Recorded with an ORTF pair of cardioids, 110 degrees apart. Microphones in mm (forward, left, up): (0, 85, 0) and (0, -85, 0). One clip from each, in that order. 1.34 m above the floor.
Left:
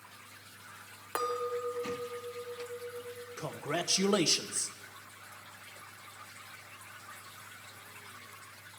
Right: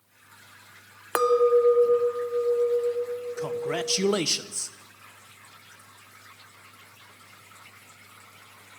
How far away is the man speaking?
About 0.7 m.